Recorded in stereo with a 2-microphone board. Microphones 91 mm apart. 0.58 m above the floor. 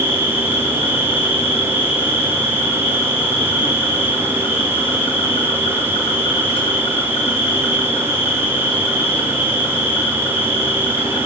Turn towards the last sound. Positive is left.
turn(degrees=75)  # may be behind; listen again after turning